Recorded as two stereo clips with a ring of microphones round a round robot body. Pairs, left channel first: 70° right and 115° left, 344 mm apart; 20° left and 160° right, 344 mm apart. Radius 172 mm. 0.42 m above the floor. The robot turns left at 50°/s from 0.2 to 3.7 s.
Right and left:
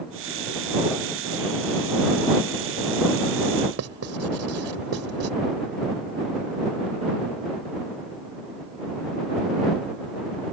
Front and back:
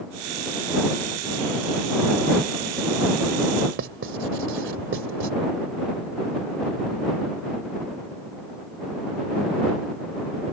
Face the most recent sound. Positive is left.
turn(degrees=155)